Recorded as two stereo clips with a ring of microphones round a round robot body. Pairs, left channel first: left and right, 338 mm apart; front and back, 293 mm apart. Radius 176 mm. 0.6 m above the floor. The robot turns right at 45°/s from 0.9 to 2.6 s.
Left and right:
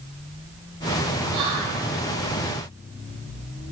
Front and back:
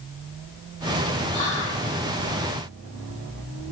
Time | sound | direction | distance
1.3 | whispering | 65° right | 0.7 m